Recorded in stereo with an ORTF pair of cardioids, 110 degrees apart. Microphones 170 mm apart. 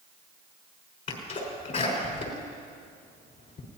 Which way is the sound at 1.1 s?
50° left.